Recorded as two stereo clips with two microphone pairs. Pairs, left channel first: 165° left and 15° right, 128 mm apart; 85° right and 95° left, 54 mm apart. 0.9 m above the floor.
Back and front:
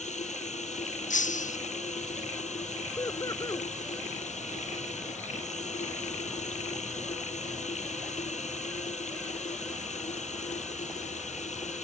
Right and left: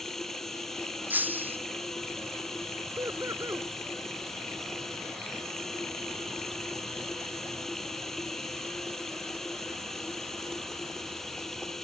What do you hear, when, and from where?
0.0 s running water: 170° right
1.1 s breaking glass: 150° left
3.0 s laughter: 105° left